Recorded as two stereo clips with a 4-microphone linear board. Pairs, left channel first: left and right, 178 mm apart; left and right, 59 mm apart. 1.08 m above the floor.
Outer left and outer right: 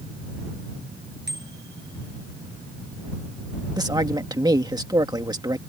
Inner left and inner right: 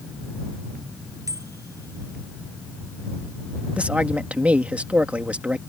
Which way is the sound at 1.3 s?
70° right (ahead or behind).